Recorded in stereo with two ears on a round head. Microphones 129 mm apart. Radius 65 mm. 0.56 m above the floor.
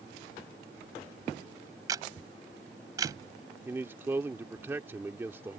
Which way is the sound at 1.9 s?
25° right (ahead or behind).